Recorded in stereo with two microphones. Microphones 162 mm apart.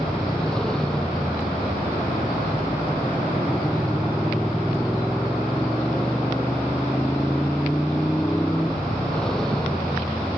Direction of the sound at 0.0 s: 5° left (ahead or behind).